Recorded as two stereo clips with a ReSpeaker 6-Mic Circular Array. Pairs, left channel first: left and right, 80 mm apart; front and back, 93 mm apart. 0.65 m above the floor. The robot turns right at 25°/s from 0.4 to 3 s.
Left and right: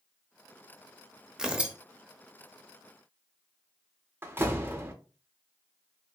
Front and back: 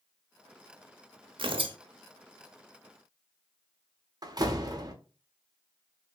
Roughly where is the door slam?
Behind right.